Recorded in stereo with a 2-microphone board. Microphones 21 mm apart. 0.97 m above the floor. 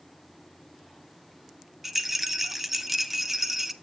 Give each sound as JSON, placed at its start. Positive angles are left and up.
{"t": 1.8, "sound": "a rattle", "side_deg": -15, "distance_m": 1.1}